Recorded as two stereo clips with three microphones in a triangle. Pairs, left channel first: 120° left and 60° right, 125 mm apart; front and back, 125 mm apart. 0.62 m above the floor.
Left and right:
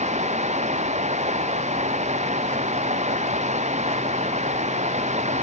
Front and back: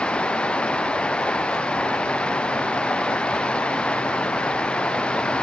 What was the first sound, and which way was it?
Running water, 80° right.